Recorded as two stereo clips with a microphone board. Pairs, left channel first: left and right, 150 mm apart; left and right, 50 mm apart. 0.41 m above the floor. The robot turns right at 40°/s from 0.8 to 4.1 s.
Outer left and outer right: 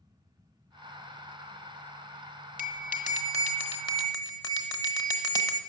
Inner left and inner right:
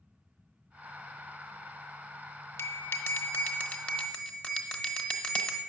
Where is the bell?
95° left, 1.1 m; by 5.6 s 155° left, 1.1 m.